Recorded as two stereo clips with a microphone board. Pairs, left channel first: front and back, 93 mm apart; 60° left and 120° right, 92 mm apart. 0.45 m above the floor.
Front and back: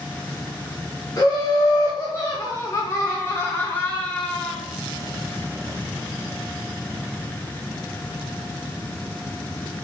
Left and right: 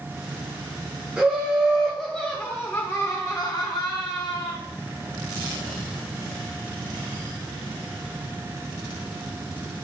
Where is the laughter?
45° right, 1.2 m; by 4.6 s 75° left, 1.3 m.